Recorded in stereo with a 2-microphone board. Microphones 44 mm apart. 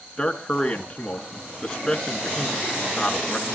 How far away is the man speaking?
About 3.5 m.